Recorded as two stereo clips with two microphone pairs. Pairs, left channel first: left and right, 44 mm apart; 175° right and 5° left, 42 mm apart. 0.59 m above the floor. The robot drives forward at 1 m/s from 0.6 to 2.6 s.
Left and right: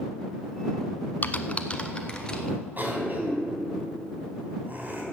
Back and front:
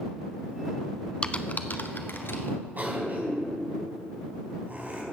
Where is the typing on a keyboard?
125° left, 0.7 m; by 2.6 s 165° left, 1.8 m.